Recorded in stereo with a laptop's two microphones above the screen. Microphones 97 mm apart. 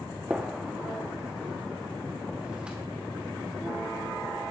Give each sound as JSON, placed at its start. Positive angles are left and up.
{"t": 0.3, "sound": "a gunshot", "side_deg": -10, "distance_m": 0.9}